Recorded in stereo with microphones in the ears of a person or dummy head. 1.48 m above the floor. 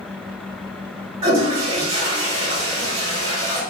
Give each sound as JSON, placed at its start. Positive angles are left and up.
{"t": 1.2, "sound": "a toilet flushing", "side_deg": -40, "distance_m": 1.8}